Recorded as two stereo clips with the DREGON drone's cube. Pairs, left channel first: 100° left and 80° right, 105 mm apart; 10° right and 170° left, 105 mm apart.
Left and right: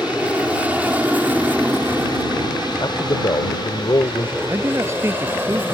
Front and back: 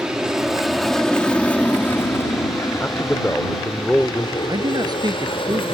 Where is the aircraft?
130° right; by 5.8 s 10° right.